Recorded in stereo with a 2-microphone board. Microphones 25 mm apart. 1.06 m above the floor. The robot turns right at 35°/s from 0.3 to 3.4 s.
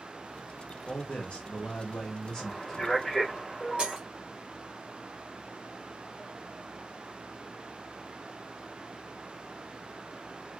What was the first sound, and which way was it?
A man speaking, 95° left.